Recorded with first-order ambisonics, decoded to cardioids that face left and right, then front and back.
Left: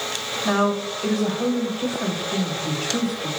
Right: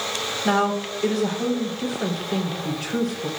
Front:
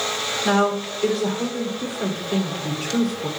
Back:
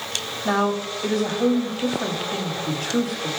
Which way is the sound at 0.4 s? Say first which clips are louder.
Even, front 1 dB; 20° right.